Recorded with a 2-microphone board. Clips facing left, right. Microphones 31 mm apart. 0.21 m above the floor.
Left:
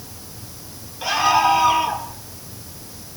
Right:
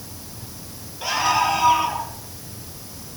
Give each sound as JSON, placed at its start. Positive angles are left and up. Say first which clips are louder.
{"t": 1.0, "sound": "a scream", "louder": "left 3 dB", "side_deg": 5, "distance_m": 5.0}